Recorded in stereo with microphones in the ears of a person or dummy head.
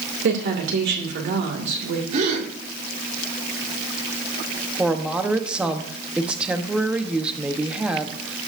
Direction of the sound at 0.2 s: 55° right (ahead or behind).